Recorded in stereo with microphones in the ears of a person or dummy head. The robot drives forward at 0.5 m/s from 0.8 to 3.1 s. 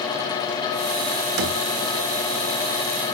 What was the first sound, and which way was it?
A thud, 80° right.